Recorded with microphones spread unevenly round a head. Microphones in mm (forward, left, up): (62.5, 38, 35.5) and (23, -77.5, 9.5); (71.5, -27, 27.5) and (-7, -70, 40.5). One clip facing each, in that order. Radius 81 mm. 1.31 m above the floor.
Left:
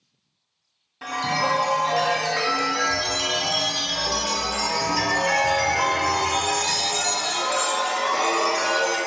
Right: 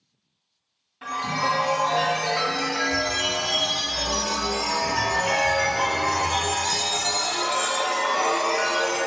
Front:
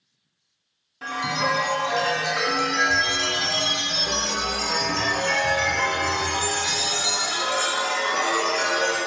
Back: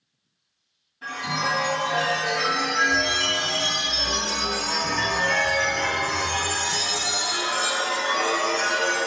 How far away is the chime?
About 0.6 m.